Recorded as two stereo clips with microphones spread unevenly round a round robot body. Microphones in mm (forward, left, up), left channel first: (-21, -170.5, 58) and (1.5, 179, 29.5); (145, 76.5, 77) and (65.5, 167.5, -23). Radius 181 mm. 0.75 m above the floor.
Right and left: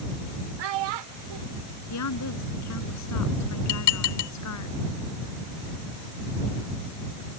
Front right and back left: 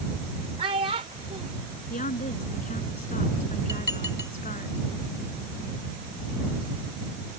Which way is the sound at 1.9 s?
50° right.